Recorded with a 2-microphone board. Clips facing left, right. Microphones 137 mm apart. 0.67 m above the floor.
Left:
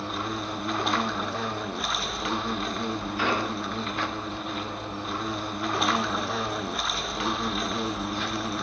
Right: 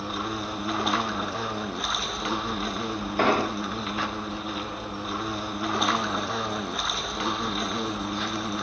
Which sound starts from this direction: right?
An explosion, at 3.2 s.